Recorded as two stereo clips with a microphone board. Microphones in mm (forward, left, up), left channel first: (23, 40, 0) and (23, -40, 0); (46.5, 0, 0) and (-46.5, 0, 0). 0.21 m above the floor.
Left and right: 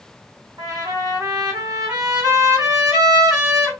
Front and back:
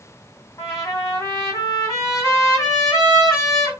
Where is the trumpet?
50° right, 3 m.